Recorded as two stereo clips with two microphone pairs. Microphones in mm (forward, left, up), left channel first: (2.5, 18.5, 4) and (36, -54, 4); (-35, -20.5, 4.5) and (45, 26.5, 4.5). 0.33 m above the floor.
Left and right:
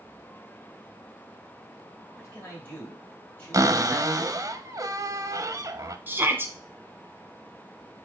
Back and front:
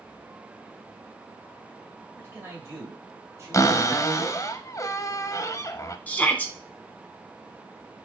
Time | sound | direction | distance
2.2 | a man speaking | 85° left | 1.8 m
3.5 | a cupboard door | 100° right | 0.5 m
6.1 | a shout | 90° right | 1.0 m